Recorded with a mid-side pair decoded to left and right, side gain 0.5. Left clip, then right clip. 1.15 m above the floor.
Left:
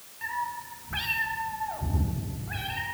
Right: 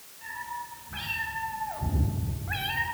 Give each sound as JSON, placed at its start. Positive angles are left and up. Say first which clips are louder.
{"t": 0.2, "sound": "a cat meowing", "louder": "left 4 dB", "azimuth_deg": 60, "distance_m": 2.5}